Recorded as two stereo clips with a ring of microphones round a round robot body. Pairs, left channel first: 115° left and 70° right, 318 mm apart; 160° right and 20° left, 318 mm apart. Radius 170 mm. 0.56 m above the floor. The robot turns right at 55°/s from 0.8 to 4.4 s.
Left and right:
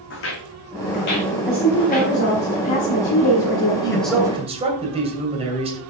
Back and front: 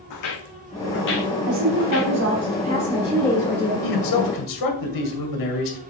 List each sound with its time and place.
0.1 s footsteps: 165° left, 1.9 m; by 2.1 s 175° right, 3 m
1.5 s a woman speaking: 20° left, 1.7 m; by 3.7 s 145° left, 1.7 m
3.8 s a man speaking: 170° right, 2.5 m; by 5.8 s 140° right, 2.5 m